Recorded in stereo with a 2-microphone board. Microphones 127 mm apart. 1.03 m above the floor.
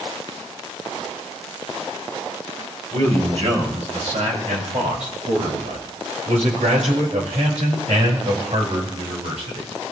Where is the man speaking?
65° right (ahead or behind), 6.5 m; by 9.7 s 60° right (ahead or behind), 5 m.